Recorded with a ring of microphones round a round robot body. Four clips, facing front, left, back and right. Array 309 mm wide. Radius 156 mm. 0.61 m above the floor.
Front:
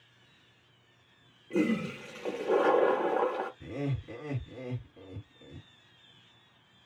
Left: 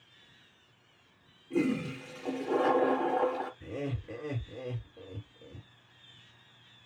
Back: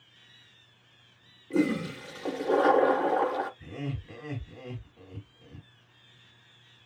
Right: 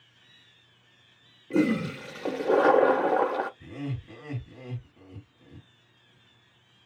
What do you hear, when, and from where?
1.5 s a toilet flushing: 100° right, 0.6 m
3.6 s laughter: 35° right, 2 m